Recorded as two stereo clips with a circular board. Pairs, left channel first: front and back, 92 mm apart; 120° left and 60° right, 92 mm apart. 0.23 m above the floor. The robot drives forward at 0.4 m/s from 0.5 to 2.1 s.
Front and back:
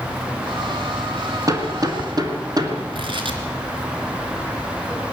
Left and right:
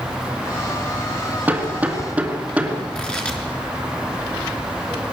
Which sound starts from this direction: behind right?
Hammering, at 1.5 s.